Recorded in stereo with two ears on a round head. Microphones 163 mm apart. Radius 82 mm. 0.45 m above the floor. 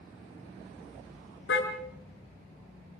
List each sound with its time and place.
1.5 s a car horn: 70° left (ahead or behind), 2.5 m